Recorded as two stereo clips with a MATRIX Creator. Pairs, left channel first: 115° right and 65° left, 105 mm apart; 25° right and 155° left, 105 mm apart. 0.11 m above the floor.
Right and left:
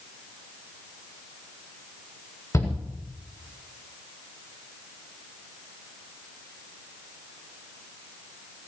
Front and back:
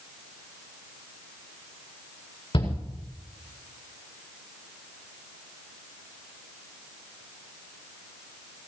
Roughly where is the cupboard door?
No cupboard door in this recording.